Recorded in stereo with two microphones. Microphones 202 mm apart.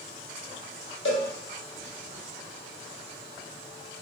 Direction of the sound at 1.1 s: 85° left.